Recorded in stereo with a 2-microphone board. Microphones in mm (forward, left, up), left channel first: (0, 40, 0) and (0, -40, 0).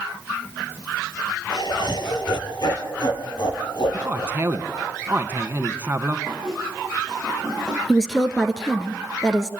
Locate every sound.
1.5 s laughter: 65° left (ahead or behind), 3.5 m
3.9 s a man speaking: 25° right (ahead or behind), 1.6 m
6.3 s a squeak: 5° left (ahead or behind), 8.5 m
7.9 s a woman speaking: 5° left (ahead or behind), 1.9 m